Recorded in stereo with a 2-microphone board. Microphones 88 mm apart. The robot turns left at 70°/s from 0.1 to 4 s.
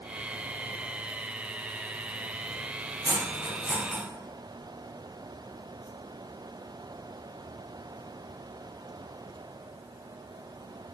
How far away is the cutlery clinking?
About 2.5 m.